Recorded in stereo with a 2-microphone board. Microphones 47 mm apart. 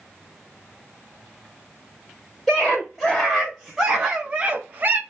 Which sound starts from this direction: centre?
A scream, at 2.5 s.